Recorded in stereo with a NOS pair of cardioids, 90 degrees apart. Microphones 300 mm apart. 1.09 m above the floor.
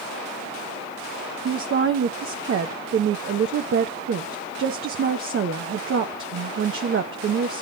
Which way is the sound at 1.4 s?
45° right.